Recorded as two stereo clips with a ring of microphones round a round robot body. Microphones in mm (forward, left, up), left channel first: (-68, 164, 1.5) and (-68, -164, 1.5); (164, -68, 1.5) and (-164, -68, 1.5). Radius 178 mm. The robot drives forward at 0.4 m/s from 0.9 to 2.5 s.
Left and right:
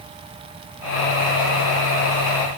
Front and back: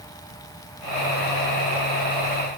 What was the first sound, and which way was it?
Only background noise.